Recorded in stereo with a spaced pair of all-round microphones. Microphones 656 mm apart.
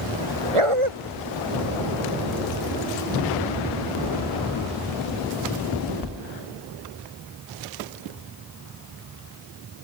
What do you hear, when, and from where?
0.5 s a dog barking: 55° right (ahead or behind)